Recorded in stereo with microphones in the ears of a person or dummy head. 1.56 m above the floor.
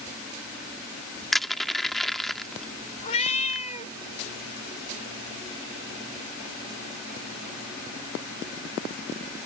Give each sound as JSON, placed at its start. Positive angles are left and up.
{"t": 1.3, "sound": "crushing", "side_deg": 0}
{"t": 3.0, "sound": "a cat meowing", "side_deg": 40}